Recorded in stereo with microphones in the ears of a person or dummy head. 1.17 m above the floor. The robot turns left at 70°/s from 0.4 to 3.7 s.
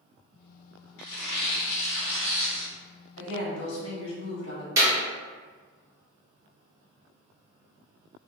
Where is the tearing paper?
115° left, 1.1 m; by 2.7 s 10° right, 1.1 m.